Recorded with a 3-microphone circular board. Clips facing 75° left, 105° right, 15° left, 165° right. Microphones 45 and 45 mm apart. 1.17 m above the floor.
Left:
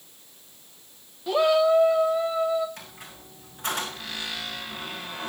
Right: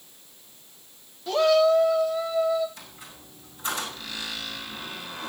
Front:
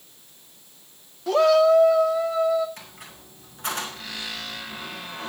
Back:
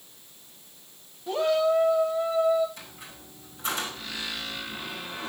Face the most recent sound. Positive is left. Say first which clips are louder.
# left 2 dB, front 1 dB
turn(degrees=50)